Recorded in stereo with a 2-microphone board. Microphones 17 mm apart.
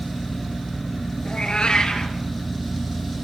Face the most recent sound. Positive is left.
turn(degrees=75)  # may be behind; listen again after turning